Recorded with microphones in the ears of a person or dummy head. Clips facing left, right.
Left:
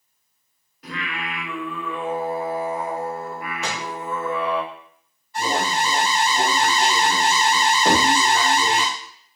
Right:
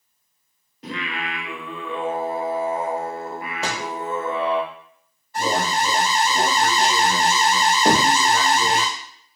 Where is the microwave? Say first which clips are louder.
Right 3 dB; 30° right (ahead or behind), 0.7 m.